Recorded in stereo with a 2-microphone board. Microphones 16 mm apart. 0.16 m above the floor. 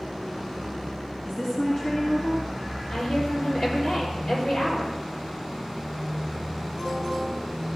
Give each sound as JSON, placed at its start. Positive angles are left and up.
{"t": 1.2, "sound": "a woman speaking", "side_deg": 45, "distance_m": 2.5}
{"t": 2.9, "sound": "a woman speaking", "side_deg": 70, "distance_m": 4.5}